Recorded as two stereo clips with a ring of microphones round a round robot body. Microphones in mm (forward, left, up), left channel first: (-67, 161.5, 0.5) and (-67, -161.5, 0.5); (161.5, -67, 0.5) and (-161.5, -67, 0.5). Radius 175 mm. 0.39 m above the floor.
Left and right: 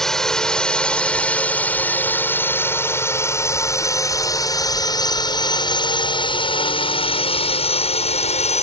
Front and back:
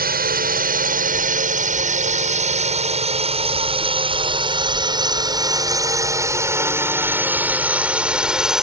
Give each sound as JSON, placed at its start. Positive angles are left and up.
{"t": 0.0, "sound": "a drone", "azimuth_deg": 175}